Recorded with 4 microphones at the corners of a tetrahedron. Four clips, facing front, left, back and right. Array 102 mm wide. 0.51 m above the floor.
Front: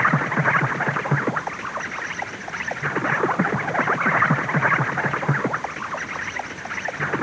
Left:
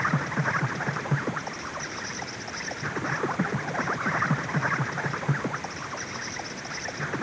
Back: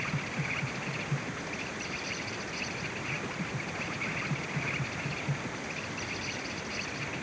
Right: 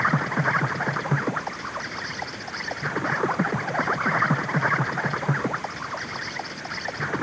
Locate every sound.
0.0 s an insect: 20° right